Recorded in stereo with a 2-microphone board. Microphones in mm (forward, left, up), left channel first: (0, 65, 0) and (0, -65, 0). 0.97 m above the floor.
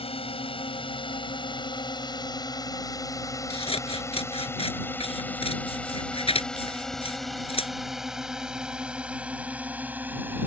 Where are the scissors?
50° left (ahead or behind).